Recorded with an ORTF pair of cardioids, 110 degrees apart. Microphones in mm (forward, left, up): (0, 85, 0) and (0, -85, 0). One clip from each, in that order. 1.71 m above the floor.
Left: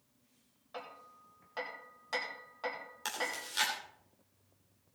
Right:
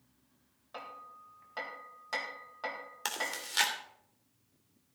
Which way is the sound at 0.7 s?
5° right.